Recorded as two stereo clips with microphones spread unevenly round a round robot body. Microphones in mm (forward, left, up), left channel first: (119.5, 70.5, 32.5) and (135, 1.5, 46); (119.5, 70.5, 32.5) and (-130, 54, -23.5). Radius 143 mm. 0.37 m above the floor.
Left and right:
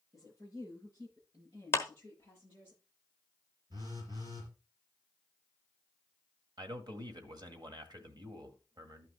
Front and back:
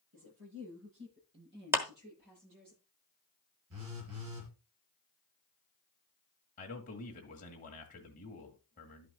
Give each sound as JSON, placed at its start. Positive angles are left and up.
{"t": 0.1, "sound": "a woman speaking", "azimuth_deg": -130, "distance_m": 8.5}
{"t": 1.7, "sound": "a clap", "azimuth_deg": 120, "distance_m": 1.3}
{"t": 3.7, "sound": "a phone buzzing", "azimuth_deg": -140, "distance_m": 4.0}
{"t": 6.6, "sound": "a man speaking", "azimuth_deg": -65, "distance_m": 1.6}